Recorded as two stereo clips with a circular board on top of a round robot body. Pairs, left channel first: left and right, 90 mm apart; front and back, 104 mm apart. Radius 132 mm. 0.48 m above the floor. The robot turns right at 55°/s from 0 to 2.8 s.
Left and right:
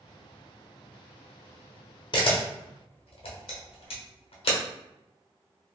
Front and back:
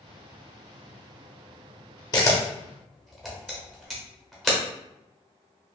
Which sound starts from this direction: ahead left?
A camera shutter, at 2.1 s.